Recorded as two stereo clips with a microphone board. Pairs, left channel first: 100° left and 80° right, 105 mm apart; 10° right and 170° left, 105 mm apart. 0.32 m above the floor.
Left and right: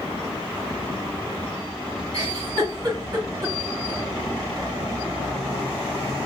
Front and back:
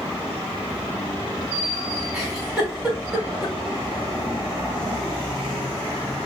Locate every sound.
2.1 s a giggle: 115° right, 3 m